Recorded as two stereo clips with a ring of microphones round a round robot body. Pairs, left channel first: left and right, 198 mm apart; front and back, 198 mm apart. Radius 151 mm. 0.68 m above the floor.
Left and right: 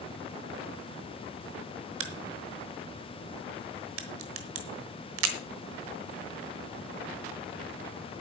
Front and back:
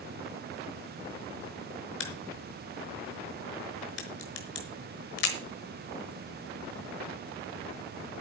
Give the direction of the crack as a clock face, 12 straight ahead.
2 o'clock.